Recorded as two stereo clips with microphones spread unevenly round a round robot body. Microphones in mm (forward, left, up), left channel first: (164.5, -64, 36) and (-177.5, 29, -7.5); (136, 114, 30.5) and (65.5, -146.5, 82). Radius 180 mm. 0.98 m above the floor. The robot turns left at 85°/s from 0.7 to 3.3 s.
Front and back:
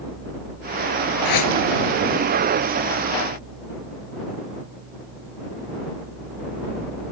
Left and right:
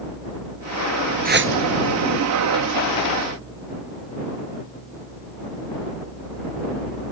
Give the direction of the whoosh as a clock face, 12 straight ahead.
2 o'clock.